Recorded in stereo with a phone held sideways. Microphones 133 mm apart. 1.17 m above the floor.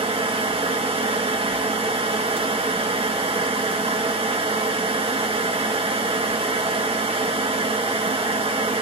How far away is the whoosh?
No whoosh in this recording.